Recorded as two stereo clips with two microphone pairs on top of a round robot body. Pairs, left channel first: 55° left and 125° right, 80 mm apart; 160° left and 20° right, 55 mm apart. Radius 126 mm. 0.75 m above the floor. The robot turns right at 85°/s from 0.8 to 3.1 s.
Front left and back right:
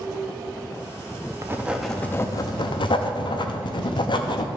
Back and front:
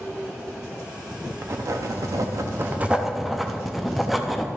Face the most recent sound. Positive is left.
turn(degrees=70)